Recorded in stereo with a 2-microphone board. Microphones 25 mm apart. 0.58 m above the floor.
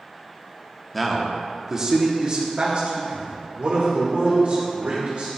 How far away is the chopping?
I don't hear chopping.